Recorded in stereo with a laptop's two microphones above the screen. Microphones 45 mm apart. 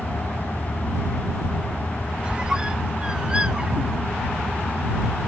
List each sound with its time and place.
0.0 s a fan: 35° left (ahead or behind)
2.2 s a squeak: 20° right (ahead or behind)